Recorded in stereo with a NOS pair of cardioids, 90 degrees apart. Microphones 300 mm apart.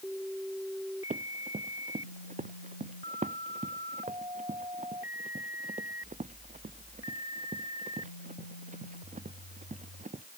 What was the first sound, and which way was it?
Running footsteps, 25° right.